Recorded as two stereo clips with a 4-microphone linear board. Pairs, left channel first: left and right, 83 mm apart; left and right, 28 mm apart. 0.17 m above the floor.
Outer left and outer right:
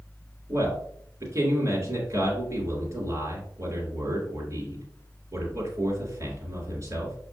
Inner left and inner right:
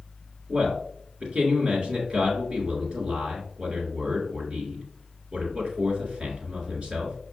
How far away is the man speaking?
About 2 m.